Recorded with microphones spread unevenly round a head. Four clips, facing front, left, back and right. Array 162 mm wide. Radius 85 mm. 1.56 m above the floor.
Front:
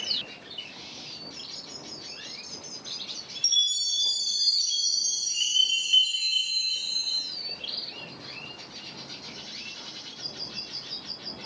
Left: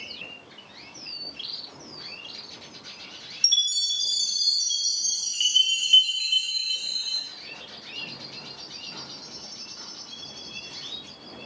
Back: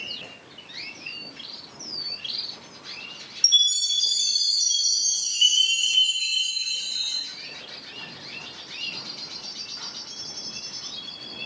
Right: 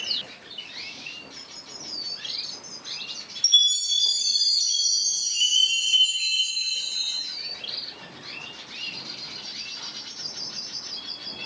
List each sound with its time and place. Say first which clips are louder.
3.4 s a chime: right 5 dB, back 6 dB; 110° left, 3.5 m